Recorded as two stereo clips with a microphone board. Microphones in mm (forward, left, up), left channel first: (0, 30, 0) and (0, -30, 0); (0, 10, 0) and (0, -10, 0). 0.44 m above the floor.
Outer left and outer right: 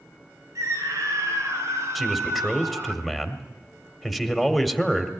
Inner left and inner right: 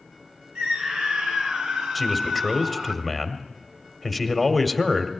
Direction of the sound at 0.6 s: 65° right (ahead or behind).